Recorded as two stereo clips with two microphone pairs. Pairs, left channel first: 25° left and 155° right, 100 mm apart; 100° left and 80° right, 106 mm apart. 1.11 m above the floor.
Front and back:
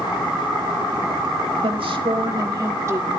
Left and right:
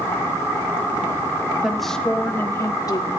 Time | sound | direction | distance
1.6 | a woman speaking | 170° right | 1.8 m